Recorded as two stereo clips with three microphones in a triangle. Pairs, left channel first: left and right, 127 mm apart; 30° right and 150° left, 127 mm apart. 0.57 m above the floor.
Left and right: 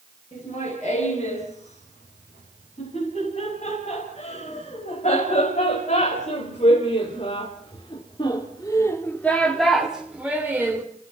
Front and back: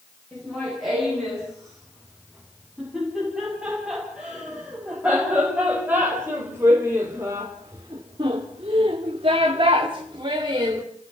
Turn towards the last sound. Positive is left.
turn(degrees=-160)